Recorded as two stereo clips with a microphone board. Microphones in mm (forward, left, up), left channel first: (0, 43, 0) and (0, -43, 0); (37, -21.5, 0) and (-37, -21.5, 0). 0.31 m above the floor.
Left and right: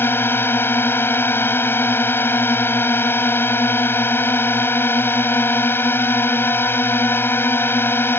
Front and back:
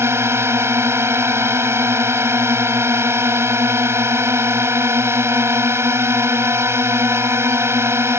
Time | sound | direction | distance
0.0 | a drone | 145° left | ?